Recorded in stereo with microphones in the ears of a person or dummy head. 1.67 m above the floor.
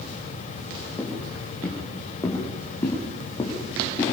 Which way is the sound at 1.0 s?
5° left (ahead or behind).